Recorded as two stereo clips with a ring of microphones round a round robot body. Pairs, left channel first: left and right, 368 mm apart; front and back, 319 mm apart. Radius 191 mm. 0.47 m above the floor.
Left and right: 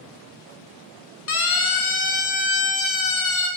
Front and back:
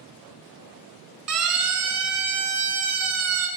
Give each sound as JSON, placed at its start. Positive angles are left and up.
{"t": 1.3, "sound": "a siren", "azimuth_deg": 145, "distance_m": 6.0}